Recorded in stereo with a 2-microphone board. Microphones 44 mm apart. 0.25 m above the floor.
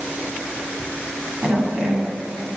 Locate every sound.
1.4 s a woman speaking: 15° right (ahead or behind), 1.5 m